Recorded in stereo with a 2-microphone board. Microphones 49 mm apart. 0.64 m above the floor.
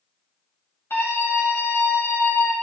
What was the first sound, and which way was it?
A scream, 60° left (ahead or behind).